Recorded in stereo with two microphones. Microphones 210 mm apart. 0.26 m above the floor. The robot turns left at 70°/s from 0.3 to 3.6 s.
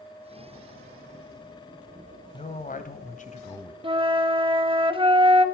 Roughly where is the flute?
Right.